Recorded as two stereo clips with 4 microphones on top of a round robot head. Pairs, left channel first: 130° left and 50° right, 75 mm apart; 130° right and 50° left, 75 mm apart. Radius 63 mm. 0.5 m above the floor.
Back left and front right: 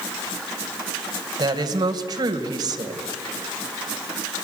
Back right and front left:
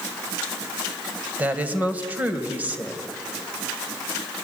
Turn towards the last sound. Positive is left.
turn(degrees=-20)